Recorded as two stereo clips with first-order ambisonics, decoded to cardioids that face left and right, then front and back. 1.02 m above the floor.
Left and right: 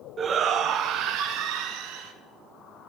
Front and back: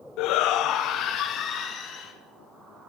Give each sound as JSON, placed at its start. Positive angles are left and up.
{"t": 0.2, "sound": "a shout", "azimuth_deg": -25, "distance_m": 0.5}